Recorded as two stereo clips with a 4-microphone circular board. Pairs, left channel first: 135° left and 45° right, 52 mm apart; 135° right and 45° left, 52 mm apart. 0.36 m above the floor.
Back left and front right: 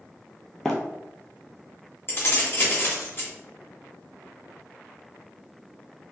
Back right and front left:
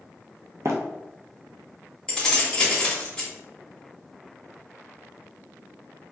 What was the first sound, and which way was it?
Running footsteps, 55° left.